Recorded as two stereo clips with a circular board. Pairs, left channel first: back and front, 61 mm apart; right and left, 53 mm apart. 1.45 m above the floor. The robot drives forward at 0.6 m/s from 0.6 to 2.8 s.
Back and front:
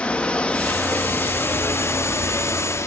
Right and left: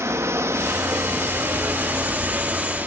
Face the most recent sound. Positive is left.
turn(degrees=145)